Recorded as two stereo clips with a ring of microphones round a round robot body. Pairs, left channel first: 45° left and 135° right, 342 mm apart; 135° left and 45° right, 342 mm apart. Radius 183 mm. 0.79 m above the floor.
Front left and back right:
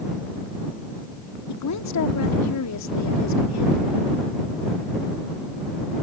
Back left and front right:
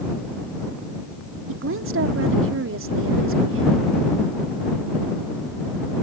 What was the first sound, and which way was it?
A woman speaking, 5° left.